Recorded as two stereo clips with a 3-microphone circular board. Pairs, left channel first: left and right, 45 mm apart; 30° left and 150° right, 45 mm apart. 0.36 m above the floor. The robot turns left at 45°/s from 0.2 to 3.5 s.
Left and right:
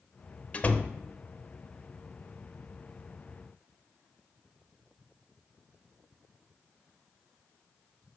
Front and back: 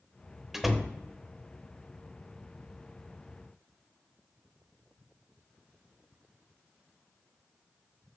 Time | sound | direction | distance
0.5 | a door slam | 135° left | 0.7 m